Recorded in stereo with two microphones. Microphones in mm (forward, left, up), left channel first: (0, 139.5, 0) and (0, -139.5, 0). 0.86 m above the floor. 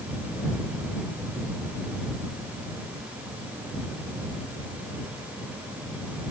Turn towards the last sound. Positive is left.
No sound to turn to.